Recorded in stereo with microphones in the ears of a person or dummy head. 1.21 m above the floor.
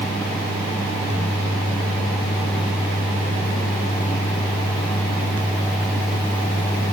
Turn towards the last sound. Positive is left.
No sound to turn to.